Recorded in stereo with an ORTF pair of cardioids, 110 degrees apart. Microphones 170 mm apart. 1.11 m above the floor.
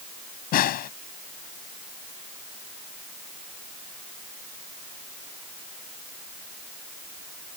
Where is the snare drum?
70° left.